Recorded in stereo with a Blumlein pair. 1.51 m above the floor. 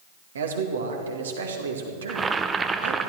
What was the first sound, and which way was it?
A man speaking, 65° right.